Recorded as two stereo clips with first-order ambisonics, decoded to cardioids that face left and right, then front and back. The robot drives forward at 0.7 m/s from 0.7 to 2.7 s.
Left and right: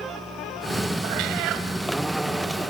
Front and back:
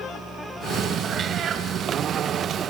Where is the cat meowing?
115° right, 1.8 m; by 1.7 s 125° right, 2 m.